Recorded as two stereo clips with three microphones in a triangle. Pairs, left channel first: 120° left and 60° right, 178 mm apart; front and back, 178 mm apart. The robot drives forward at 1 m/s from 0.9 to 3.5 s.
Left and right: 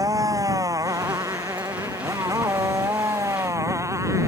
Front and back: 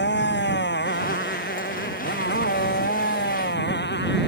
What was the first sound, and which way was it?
A motorcycle, 10° left.